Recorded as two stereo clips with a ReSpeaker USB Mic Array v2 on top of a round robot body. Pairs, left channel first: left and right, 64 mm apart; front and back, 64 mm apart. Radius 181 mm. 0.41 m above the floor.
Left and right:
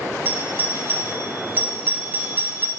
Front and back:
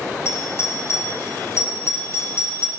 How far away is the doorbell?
About 2.5 m.